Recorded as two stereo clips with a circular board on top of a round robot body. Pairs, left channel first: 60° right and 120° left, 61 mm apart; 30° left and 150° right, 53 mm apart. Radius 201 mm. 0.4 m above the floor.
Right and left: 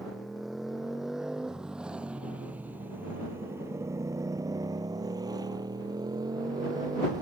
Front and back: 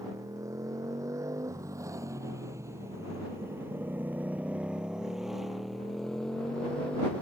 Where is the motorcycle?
150° right; by 7.2 s 100° left.